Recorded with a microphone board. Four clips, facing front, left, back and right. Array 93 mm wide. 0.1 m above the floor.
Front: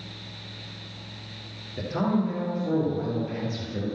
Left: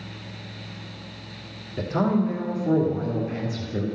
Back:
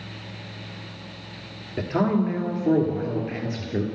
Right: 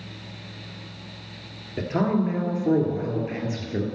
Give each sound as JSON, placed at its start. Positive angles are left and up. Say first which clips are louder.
{"t": 1.8, "sound": "a man speaking", "louder": "left 1 dB, back 3 dB", "azimuth_deg": -145, "distance_m": 2.0}